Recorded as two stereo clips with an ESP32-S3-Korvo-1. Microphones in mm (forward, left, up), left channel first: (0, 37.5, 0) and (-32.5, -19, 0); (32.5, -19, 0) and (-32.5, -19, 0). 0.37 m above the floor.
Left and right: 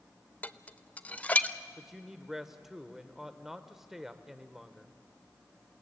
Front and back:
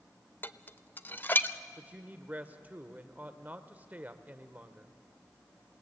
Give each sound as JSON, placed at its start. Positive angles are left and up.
{"t": 0.4, "sound": "dishes clattering", "azimuth_deg": 15, "distance_m": 0.5}
{"t": 1.8, "sound": "a woman speaking", "azimuth_deg": 160, "distance_m": 1.0}